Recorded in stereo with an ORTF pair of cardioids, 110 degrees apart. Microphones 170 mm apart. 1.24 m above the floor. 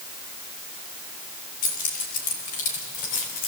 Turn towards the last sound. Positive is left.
turn(degrees=60)